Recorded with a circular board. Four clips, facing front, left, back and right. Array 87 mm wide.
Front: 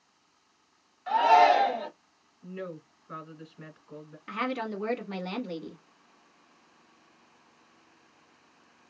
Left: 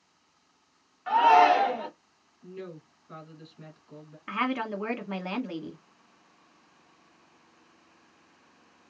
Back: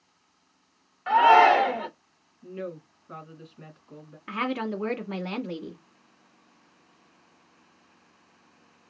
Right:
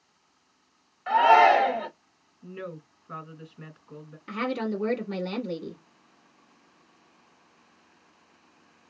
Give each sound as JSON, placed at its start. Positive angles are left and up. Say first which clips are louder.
{"t": 1.1, "sound": "a shout", "louder": "right 1 dB, back 3 dB", "azimuth_deg": 180, "distance_m": 1.2}
{"t": 2.4, "sound": "a woman speaking", "louder": "right 3 dB, back 3 dB", "azimuth_deg": -80, "distance_m": 1.5}
{"t": 4.3, "sound": "a woman speaking", "louder": "even, back 3 dB", "azimuth_deg": 125, "distance_m": 1.2}